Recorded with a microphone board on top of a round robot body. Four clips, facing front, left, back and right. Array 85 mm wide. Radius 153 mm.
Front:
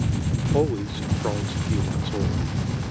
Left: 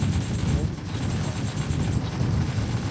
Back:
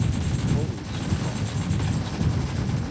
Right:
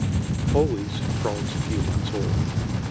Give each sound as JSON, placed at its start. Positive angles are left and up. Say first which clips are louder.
{"t": 0.5, "sound": "a man speaking", "louder": "right 8 dB, front 7 dB", "azimuth_deg": -50}